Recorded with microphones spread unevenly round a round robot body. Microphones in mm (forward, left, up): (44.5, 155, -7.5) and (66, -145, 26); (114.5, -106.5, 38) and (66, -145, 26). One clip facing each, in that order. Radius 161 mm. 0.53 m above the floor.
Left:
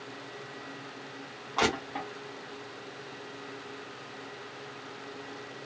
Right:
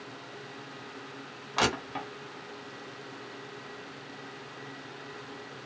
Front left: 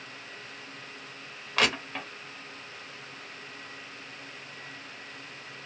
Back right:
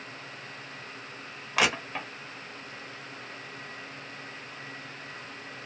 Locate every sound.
1.6 s crushing: 90° right, 1.3 m